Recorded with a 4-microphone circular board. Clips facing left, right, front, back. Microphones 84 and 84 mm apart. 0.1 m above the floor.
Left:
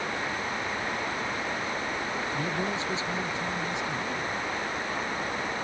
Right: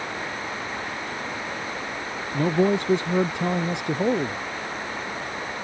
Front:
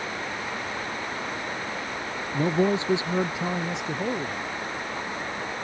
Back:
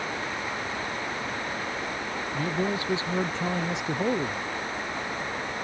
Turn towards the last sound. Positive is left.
turn(degrees=-105)